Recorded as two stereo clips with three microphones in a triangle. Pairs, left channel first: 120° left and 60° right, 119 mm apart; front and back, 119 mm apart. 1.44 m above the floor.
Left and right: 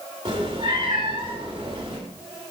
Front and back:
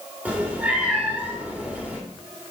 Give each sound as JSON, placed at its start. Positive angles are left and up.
{"t": 0.2, "sound": "a cat meowing", "azimuth_deg": -100, "distance_m": 1.9}